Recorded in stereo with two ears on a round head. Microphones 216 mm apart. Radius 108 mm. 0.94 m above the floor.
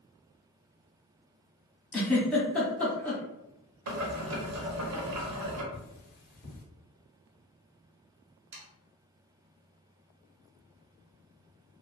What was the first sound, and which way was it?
A giggle, 5° left (ahead or behind).